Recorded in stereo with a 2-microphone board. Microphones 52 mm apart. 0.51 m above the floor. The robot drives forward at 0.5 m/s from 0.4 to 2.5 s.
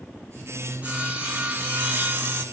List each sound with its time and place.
0.8 s sawing: 25° right (ahead or behind), 1.7 m; by 2.4 s 45° right (ahead or behind), 1.0 m